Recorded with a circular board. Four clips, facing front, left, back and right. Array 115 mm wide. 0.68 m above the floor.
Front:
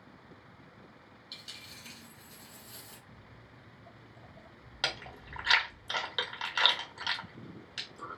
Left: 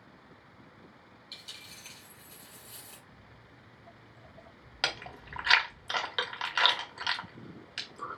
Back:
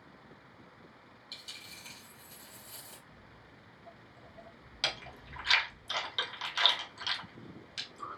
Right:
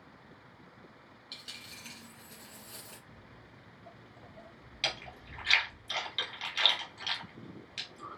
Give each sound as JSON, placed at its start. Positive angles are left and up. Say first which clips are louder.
{"t": 1.3, "sound": "a dropped coin", "louder": "right 3 dB, front 1 dB", "azimuth_deg": -65, "distance_m": 2.0}
{"t": 3.1, "sound": "footsteps", "louder": "right 1 dB, front 1 dB", "azimuth_deg": -65, "distance_m": 0.7}
{"t": 4.8, "sound": "chewing", "louder": "left 3 dB, front 2 dB", "azimuth_deg": 70, "distance_m": 0.9}